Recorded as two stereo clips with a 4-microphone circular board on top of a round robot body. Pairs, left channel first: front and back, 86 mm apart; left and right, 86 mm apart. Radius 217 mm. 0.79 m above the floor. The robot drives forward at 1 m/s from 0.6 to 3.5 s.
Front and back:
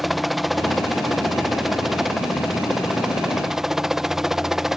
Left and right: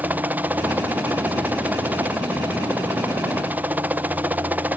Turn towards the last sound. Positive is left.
turn(degrees=-105)